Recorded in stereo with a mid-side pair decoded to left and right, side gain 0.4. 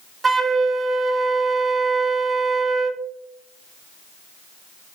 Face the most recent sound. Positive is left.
turn(degrees=-30)